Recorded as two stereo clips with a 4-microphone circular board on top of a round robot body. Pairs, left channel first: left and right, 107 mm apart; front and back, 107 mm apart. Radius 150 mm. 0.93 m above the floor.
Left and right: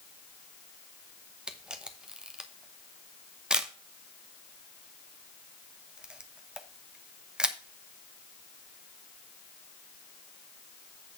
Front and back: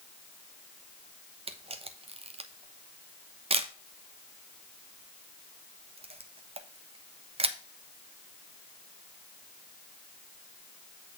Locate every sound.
1.5 s a camera shutter: 170° right, 1.3 m